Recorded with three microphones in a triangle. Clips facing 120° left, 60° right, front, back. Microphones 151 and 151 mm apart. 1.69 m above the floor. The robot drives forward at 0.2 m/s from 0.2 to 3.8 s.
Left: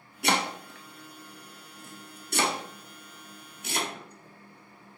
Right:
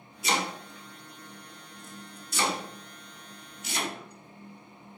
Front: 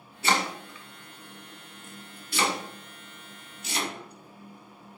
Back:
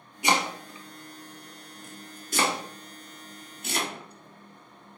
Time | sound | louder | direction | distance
0.2 | chopping | left 2 dB, back 1 dB | 110° left | 0.6 m